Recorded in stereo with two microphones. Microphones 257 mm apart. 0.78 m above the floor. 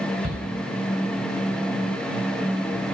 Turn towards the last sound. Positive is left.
turn(degrees=-45)  # may be behind; listen again after turning